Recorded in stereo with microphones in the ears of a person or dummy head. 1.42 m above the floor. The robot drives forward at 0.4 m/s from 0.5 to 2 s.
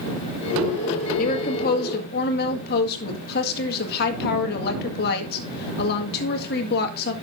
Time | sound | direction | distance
1.2 | a woman speaking | 45° left (ahead or behind) | 2.0 m